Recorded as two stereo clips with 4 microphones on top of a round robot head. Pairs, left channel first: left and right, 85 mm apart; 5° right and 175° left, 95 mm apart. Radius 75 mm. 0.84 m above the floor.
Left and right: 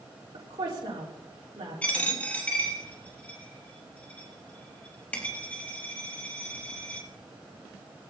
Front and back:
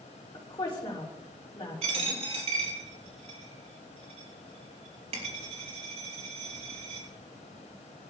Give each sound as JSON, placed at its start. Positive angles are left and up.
{"t": 0.3, "sound": "a woman speaking", "azimuth_deg": -55, "distance_m": 3.0}
{"t": 1.8, "sound": "a dropped coin", "azimuth_deg": 165, "distance_m": 4.5}